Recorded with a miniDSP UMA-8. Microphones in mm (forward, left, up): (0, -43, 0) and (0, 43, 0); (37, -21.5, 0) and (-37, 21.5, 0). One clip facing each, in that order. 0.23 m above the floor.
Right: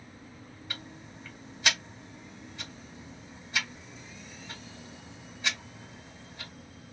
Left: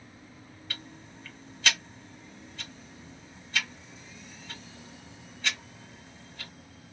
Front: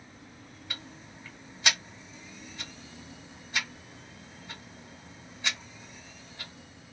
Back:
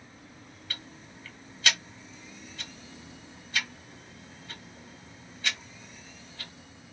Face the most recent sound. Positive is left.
turn(degrees=-55)